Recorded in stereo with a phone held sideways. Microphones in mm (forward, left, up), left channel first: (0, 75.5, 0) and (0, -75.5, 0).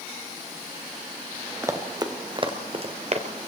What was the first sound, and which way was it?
Running footsteps, 20° right (ahead or behind).